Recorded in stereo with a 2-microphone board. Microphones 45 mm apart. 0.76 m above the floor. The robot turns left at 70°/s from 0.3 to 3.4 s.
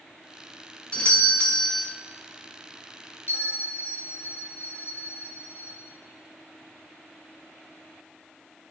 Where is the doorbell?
25° left (ahead or behind), 1.0 m; by 1.9 s 15° left (ahead or behind), 1.0 m.